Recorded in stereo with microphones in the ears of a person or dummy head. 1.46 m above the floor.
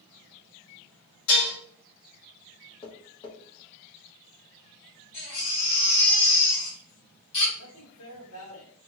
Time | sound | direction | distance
1.3 | dishes clattering | 65° left (ahead or behind) | 1.8 m
2.8 | tapping | 25° left (ahead or behind) | 0.8 m
5.1 | a baby crying | 35° left (ahead or behind) | 1.7 m
7.6 | a man speaking | 80° left | 1.5 m